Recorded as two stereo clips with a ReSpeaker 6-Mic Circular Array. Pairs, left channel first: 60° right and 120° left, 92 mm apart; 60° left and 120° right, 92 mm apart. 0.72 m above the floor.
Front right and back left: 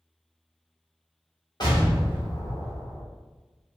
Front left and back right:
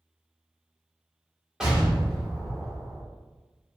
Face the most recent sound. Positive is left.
turn(degrees=-40)